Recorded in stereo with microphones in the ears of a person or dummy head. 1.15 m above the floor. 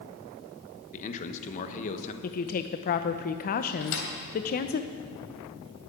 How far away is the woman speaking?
About 0.6 m.